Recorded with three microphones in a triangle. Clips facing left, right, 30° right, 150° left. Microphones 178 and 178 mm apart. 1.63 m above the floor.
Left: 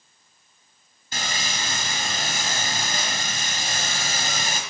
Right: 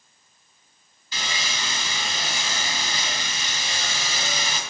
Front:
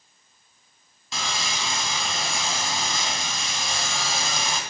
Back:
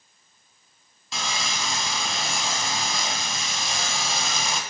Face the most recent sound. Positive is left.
turn(degrees=60)